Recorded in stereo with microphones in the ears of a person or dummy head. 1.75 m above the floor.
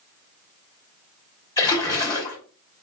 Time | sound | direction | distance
1.6 | a splash | 15° left (ahead or behind) | 1.7 m